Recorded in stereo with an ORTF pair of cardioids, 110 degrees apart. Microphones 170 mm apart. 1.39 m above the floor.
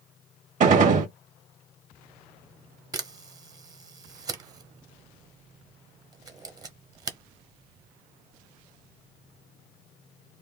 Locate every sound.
0.6 s a gunshot: 55° right, 1.4 m
2.9 s a camera shutter: 25° right, 0.8 m